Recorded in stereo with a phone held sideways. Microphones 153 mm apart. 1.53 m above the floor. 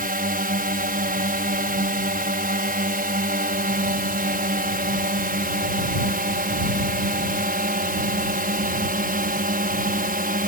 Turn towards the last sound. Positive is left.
turn(degrees=-70)  # may be behind; listen again after turning